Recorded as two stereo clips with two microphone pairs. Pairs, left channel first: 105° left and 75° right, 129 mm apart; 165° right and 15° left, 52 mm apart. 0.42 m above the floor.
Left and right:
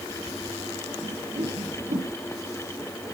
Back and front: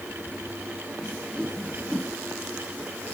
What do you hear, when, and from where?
1.0 s a whoosh: 80° right, 3 m